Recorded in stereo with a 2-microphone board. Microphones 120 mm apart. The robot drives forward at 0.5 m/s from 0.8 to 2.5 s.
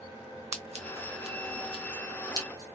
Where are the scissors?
65° right (ahead or behind), 0.9 m; by 2.8 s 35° right (ahead or behind), 1.5 m.